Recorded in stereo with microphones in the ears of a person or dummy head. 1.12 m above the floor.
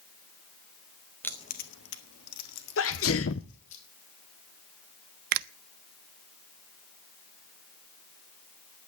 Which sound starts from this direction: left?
A sneeze, at 2.8 s.